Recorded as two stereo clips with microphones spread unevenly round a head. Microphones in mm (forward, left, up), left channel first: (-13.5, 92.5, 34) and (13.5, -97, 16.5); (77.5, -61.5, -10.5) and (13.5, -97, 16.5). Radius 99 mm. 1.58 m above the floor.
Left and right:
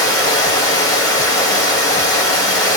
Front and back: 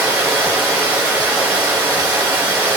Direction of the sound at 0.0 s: 160° left.